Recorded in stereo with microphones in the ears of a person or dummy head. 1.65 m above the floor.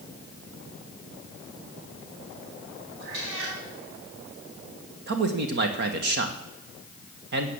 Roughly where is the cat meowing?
Right.